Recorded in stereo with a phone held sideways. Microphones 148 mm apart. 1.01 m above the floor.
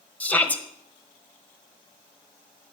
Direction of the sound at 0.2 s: 10° left (ahead or behind).